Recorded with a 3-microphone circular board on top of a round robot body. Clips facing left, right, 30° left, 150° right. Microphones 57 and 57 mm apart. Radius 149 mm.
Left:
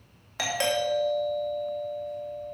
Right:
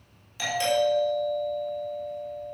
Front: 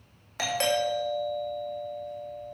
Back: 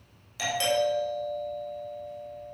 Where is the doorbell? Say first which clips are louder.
Right 3 dB, back 1 dB; 70° left, 3 m.